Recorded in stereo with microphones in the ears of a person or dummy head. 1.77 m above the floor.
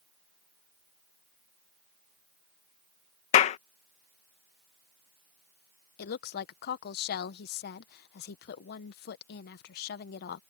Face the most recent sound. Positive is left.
turn(degrees=65)  # may be behind; listen again after turning